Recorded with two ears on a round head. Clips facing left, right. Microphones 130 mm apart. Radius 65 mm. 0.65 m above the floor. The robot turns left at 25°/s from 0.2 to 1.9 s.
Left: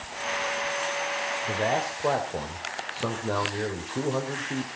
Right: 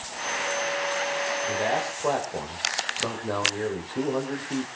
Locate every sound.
1.5 s a man speaking: 15° left (ahead or behind), 2.5 m; by 4.7 s 5° left (ahead or behind), 2.5 m